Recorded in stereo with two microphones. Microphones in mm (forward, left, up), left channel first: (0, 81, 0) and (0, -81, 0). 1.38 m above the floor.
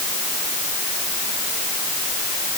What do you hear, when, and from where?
Only background noise.